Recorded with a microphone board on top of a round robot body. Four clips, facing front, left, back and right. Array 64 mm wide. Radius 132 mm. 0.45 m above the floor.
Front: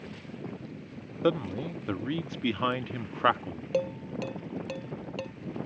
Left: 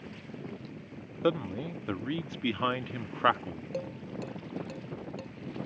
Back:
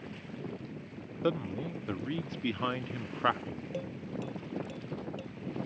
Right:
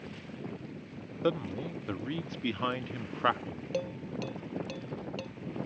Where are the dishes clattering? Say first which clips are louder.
Right 3 dB, front 11 dB; straight ahead.